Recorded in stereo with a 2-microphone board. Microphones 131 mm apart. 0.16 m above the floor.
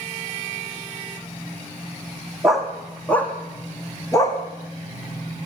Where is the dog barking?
5° right (ahead or behind), 4 m; by 4.4 s 30° left (ahead or behind), 4.5 m.